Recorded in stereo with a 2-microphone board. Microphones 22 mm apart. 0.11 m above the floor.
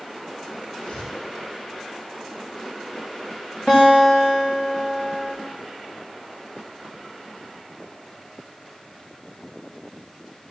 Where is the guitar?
30° left (ahead or behind), 6 m.